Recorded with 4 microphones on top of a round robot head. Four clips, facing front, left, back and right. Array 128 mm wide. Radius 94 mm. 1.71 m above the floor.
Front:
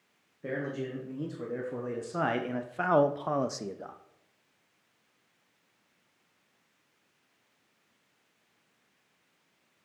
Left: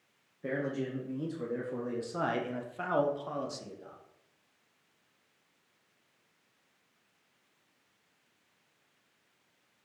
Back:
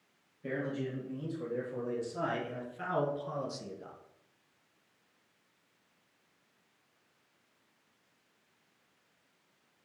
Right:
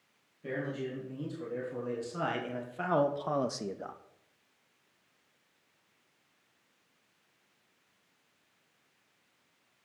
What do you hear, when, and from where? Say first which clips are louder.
0.4 s a man speaking: left 2 dB, front 2 dB; 40° left, 2.5 m; by 4.0 s 55° right, 0.9 m